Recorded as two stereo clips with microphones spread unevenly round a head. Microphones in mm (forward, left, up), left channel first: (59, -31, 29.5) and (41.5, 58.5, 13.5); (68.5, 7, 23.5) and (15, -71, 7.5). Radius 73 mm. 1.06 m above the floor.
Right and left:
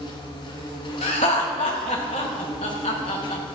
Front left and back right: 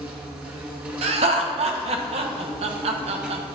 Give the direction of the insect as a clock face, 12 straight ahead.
2 o'clock.